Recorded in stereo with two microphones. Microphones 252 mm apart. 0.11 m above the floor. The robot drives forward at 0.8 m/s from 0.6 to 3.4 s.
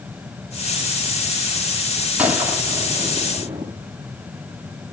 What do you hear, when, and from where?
2.2 s a gunshot: 5° right (ahead or behind), 2.5 m; by 3.7 s 10° right (ahead or behind), 1.8 m